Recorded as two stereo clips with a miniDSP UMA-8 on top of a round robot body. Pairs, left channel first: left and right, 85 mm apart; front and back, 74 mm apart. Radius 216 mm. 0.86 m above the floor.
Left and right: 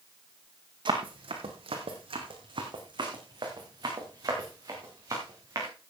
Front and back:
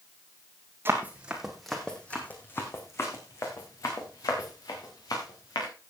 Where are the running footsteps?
120° right, 1.9 m; by 5.7 s 35° right, 5.5 m.